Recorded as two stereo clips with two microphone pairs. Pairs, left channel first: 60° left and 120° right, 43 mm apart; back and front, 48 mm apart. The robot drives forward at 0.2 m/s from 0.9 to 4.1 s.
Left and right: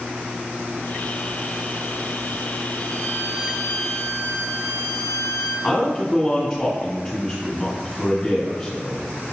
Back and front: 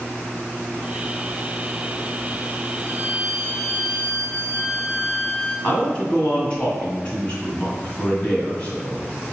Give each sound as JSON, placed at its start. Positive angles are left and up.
{"t": 2.8, "sound": "a violin", "azimuth_deg": 140, "distance_m": 1.7}
{"t": 5.6, "sound": "a man speaking", "azimuth_deg": 140, "distance_m": 1.7}